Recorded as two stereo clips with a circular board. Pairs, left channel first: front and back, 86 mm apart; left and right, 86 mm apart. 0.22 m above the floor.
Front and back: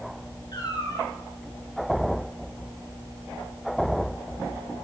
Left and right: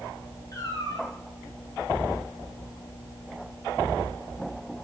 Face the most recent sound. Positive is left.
turn(degrees=40)